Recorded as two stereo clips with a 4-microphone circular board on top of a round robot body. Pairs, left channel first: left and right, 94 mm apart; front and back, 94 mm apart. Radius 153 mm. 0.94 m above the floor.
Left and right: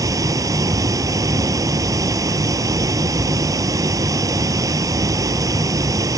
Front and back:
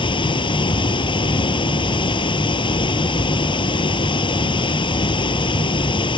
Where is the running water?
35° right.